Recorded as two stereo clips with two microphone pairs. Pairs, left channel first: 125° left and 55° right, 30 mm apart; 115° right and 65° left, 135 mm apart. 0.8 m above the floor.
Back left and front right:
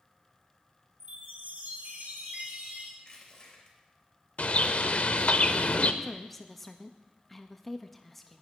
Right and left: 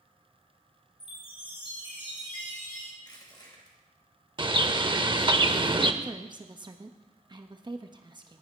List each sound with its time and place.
1.0 s a chime: 65° right, 4 m
3.0 s crushing: 170° right, 3 m
4.4 s a bird: 110° left, 0.7 m
6.0 s a woman speaking: 45° left, 0.9 m